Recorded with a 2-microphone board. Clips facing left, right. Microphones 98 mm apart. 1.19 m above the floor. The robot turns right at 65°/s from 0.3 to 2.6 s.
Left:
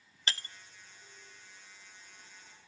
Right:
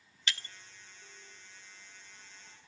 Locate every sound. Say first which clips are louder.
0.3 s breaking glass: left 1 dB; 35° left (ahead or behind), 0.5 m; by 0.5 s 40° left (ahead or behind), 0.5 m